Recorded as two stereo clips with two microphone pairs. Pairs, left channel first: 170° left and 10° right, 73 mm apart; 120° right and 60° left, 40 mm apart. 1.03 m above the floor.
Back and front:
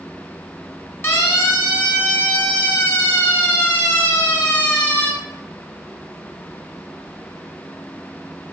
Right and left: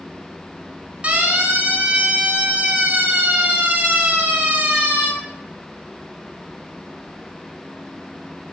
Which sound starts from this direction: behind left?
A siren, at 1.0 s.